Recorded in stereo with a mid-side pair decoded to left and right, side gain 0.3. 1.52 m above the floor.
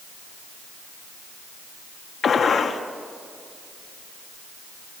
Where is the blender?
No blender in this recording.